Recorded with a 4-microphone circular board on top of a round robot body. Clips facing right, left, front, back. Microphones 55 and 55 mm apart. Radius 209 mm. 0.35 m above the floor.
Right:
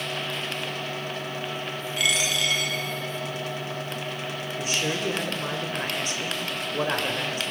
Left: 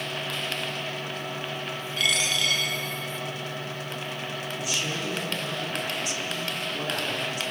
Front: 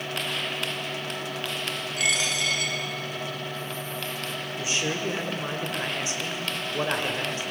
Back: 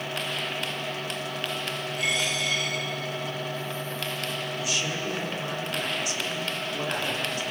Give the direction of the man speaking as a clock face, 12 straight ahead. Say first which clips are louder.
Right 4 dB, front 4 dB; 2 o'clock.